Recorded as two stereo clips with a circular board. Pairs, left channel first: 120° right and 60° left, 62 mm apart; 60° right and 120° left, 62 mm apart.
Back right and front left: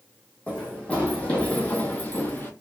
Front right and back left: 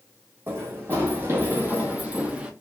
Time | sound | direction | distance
0.5 | running footsteps | 170° left | 2.0 m